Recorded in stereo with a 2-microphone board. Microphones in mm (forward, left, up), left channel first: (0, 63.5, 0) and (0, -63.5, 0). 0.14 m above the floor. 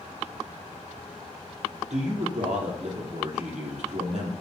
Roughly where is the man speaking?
Right.